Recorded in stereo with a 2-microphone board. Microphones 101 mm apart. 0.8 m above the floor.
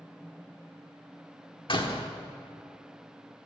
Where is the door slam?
55° left (ahead or behind), 1.2 m.